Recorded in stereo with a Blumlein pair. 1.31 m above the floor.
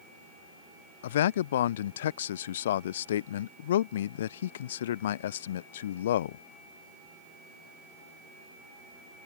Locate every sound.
1.0 s a man speaking: 60° left